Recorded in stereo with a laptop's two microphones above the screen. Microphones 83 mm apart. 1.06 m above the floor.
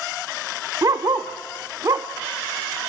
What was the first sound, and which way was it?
A dog barking, 45° right (ahead or behind).